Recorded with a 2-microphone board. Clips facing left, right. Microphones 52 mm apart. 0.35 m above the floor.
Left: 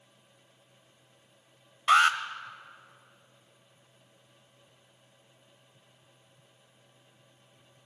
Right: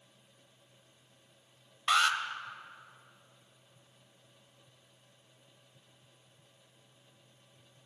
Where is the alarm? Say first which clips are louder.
Left 6 dB; 35° left (ahead or behind), 1.0 m.